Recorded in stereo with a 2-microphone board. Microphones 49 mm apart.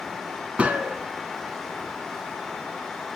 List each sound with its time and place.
0.6 s a gunshot: 25° right (ahead or behind), 0.5 m